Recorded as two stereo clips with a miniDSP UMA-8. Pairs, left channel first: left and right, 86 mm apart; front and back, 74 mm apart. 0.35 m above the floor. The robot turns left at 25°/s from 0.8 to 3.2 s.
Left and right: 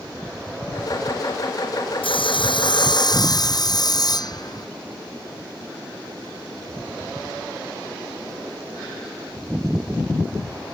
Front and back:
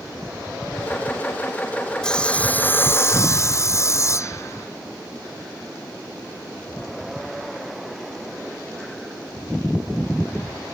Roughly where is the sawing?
Left.